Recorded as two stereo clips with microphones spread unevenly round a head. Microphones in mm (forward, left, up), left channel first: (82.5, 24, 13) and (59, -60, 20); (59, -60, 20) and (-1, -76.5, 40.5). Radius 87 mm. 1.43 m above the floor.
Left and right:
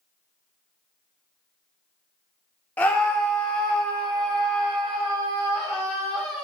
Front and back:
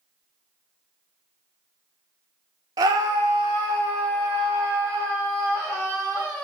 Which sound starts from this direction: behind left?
A scream, at 2.8 s.